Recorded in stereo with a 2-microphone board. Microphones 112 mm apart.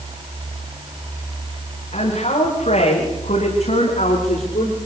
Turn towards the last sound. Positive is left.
turn(degrees=80)